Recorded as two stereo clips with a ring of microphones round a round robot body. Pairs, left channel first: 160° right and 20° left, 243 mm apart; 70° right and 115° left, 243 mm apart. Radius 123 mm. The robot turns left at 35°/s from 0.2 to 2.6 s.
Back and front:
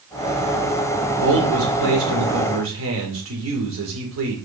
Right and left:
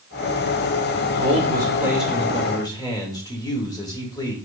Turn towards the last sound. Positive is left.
turn(degrees=5)